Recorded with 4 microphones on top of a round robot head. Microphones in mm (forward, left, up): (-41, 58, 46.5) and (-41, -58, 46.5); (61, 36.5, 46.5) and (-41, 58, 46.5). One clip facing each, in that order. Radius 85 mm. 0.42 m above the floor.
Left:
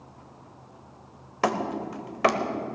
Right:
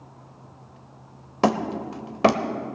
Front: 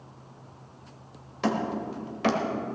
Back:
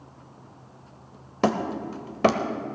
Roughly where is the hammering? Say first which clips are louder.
Right 4 dB, back 3 dB; behind right.